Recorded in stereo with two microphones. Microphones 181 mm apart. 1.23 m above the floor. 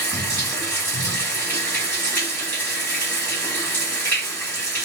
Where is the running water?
10° left (ahead or behind), 1.9 m.